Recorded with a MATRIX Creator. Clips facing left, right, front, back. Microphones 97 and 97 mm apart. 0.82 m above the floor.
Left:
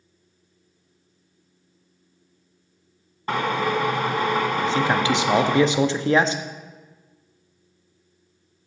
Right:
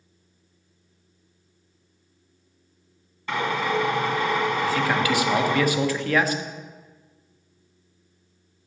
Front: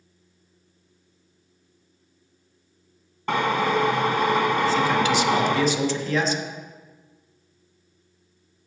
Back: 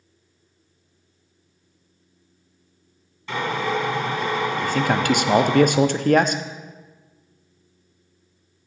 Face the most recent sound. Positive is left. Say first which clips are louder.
# left 2 dB, even
turn(degrees=155)